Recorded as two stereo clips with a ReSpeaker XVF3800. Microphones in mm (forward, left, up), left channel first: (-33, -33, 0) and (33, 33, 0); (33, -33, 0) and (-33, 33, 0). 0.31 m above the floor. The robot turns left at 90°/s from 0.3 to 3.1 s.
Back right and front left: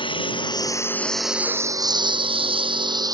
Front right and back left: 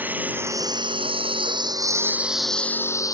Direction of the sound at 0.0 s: 155° right.